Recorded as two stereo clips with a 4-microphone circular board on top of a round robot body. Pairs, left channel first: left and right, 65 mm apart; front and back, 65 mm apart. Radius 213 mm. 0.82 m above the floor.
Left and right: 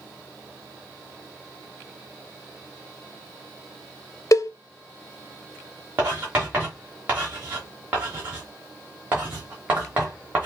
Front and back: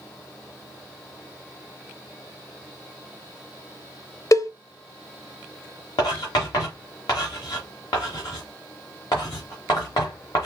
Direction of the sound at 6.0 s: 25° right.